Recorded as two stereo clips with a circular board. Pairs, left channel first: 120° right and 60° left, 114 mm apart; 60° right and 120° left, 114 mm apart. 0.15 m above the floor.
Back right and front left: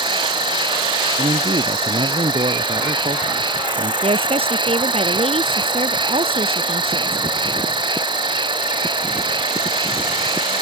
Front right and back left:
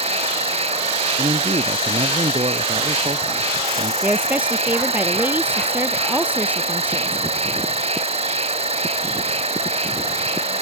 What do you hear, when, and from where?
0.0 s an insect: 105° left
1.2 s a man speaking: 90° left
4.0 s a woman speaking: 45° left